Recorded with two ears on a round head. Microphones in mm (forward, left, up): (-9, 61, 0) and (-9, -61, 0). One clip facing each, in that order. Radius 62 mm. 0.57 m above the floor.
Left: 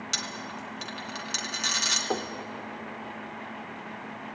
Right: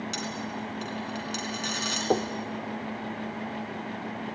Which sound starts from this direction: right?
Knocking, at 2.1 s.